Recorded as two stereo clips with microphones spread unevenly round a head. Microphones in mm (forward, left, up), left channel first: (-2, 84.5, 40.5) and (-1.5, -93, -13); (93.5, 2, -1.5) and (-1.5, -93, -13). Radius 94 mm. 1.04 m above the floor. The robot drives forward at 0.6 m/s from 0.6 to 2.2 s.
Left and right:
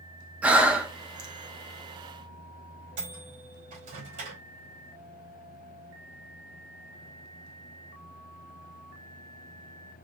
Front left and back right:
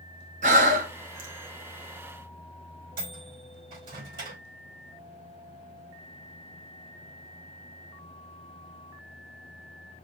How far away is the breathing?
About 0.6 m.